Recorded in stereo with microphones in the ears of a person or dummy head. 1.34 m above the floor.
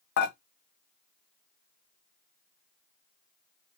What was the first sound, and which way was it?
Dishes clattering, 60° left (ahead or behind).